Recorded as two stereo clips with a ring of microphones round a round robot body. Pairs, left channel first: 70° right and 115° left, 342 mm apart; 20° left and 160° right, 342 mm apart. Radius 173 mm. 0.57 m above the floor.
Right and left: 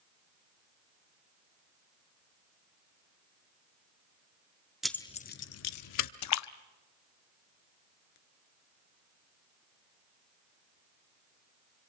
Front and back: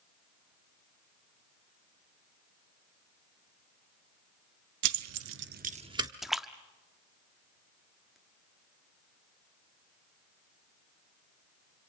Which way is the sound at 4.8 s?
160° right.